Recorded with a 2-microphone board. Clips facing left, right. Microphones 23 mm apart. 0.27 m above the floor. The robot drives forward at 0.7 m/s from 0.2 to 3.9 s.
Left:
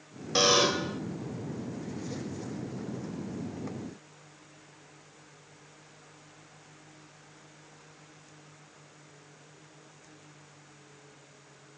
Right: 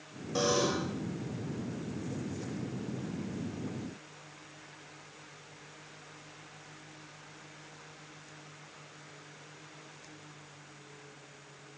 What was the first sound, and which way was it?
A buzzer, 65° left (ahead or behind).